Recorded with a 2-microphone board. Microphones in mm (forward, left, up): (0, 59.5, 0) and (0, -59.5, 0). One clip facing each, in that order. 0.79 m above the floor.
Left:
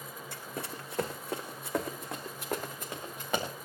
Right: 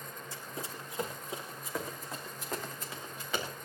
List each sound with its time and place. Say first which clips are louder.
0.3 s running footsteps: left 3 dB; 65° left (ahead or behind), 2.5 m; by 3.5 s 50° left (ahead or behind), 4.5 m